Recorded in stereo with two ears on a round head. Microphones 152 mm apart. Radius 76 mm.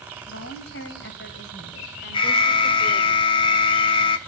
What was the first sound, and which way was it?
A woman speaking, 75° left (ahead or behind).